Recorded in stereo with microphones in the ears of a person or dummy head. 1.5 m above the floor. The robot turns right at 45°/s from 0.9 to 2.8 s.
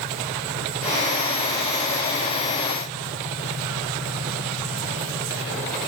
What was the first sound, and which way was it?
Only background noise.